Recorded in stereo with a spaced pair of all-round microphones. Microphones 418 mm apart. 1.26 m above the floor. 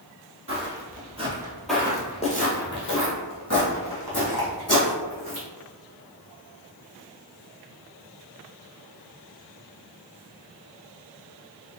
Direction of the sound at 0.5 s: 30° right (ahead or behind).